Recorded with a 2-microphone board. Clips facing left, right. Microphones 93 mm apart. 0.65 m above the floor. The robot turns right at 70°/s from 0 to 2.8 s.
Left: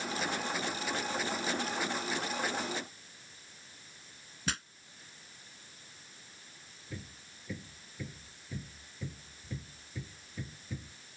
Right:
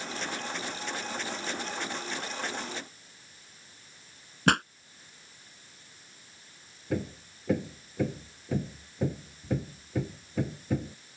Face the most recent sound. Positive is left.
turn(degrees=-70)  # may be behind; listen again after turning